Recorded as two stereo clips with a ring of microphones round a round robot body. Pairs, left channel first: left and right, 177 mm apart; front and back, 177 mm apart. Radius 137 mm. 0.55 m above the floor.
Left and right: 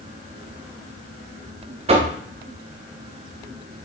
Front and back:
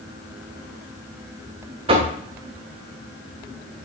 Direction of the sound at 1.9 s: 130° right.